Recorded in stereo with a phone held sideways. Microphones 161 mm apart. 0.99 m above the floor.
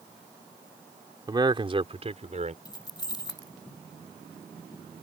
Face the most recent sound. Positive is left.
turn(degrees=25)  # may be behind; listen again after turning